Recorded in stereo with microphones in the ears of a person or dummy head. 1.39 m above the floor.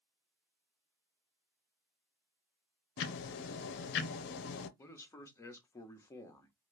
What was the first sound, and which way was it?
Ticking, 55° left (ahead or behind).